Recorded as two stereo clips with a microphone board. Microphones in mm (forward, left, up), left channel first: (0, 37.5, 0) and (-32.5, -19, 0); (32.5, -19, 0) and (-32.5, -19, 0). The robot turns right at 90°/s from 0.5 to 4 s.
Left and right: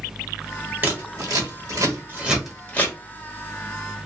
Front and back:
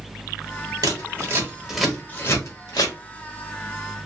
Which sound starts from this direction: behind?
Scissors, at 0.8 s.